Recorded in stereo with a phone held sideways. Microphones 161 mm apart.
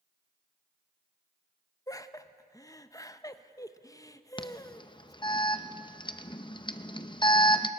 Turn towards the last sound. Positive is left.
turn(degrees=30)  # may be behind; listen again after turning